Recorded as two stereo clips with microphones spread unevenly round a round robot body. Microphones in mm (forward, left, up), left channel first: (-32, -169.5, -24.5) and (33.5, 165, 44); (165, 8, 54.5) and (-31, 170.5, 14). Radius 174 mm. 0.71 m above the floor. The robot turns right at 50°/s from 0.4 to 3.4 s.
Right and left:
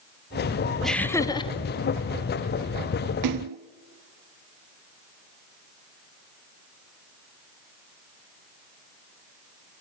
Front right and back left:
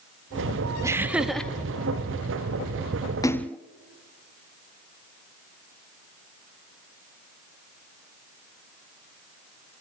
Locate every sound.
0.8 s laughter: 170° right, 0.9 m; by 1.5 s 135° right, 0.9 m
3.2 s a splash: 45° left, 0.8 m; by 3.6 s 50° left, 0.8 m